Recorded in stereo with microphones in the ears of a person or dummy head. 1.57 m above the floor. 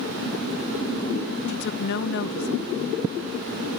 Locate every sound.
1.5 s a woman speaking: 60° left (ahead or behind)